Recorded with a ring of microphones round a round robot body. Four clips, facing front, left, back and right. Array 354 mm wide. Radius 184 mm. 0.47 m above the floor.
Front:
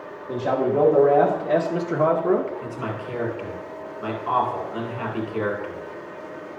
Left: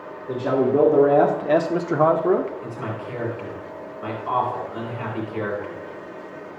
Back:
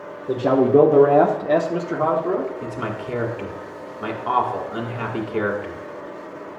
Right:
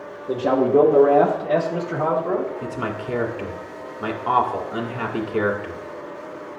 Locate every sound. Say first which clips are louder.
0.3 s a man speaking: right 2 dB, back 6 dB; 165° right, 1.4 m; by 2.5 s 65° left, 1.2 m
2.6 s a man speaking: right 3 dB, back 2 dB; 120° right, 2.0 m